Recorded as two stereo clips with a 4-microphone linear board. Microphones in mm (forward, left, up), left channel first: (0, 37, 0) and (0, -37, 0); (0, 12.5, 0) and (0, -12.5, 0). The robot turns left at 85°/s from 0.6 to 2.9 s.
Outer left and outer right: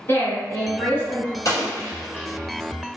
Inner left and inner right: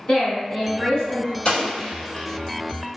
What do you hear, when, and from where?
0.1 s a woman speaking: 100° left, 1.3 m; by 1.4 s 35° left, 1.3 m
1.4 s an explosion: 45° left (ahead or behind), 1.1 m; by 3.0 s 15° right (ahead or behind), 1.1 m